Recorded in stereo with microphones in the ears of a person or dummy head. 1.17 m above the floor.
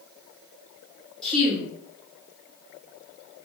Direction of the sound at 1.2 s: Centre (ahead or behind).